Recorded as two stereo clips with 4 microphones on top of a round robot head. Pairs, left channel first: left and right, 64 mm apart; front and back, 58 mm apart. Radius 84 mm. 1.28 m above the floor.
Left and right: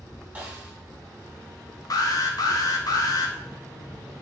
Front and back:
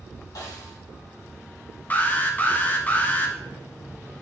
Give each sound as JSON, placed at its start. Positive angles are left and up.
{"t": 0.3, "sound": "a snare drum", "azimuth_deg": -25, "distance_m": 2.5}
{"t": 1.9, "sound": "an alarm", "azimuth_deg": 65, "distance_m": 1.0}